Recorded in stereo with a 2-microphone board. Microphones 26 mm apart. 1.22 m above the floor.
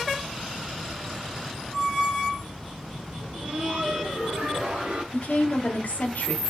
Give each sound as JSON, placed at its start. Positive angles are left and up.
{"t": 3.2, "sound": "laughter", "side_deg": -80, "distance_m": 1.8}
{"t": 5.1, "sound": "a woman speaking", "side_deg": 85, "distance_m": 1.3}